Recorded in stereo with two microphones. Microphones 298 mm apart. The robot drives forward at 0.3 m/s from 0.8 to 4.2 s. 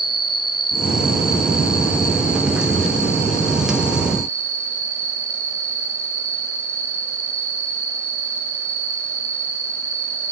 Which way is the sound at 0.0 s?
15° left (ahead or behind).